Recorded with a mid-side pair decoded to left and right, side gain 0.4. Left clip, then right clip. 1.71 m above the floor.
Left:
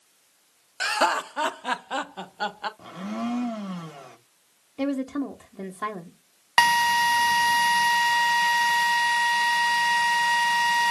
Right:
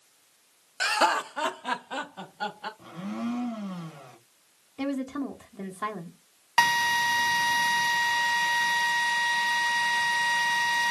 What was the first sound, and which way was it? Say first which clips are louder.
Laughter: left 1 dB; straight ahead.